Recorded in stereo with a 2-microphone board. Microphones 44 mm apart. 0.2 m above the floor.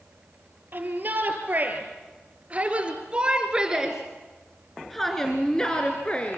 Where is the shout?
45° right (ahead or behind), 4.5 m; by 6.4 s 30° left (ahead or behind), 2.5 m.